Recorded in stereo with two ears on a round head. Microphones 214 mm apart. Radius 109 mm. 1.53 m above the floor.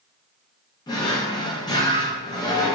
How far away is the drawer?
About 0.6 m.